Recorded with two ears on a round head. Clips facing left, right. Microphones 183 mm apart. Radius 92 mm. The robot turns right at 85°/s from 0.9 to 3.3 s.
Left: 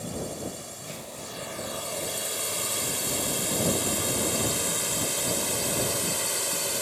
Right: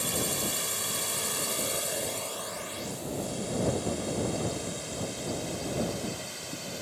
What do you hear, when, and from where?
0.0 s a drone: 75° right (ahead or behind); by 6.8 s 70° left (ahead or behind)